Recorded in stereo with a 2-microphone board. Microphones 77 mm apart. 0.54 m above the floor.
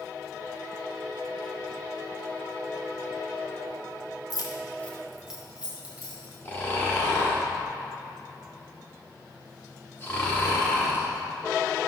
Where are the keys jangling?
60° left (ahead or behind), 0.7 m; by 6.3 s 25° right (ahead or behind), 2.0 m.